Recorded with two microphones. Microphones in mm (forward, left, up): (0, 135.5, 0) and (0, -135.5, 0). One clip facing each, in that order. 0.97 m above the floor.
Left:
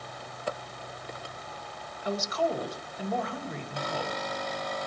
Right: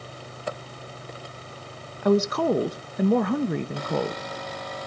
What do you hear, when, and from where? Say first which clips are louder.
2.0 s a woman speaking: right 10 dB; 70° right (ahead or behind), 0.8 m